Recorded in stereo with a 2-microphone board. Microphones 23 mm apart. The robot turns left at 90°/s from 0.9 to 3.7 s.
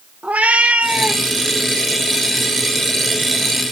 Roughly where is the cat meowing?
Right.